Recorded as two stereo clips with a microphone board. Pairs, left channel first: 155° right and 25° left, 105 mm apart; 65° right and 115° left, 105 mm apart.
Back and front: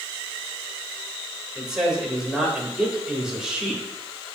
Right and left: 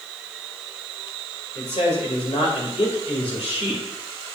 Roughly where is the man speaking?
Ahead right.